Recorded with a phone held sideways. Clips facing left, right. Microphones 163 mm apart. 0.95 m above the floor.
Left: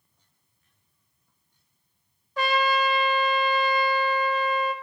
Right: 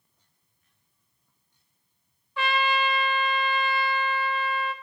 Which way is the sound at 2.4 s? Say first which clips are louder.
Left 3 dB; 45° left (ahead or behind).